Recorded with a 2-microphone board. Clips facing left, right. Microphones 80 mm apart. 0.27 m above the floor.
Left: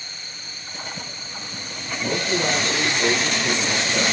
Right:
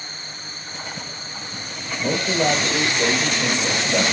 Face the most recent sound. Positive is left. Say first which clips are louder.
# right 3 dB
turn(degrees=-60)  # may be behind; listen again after turning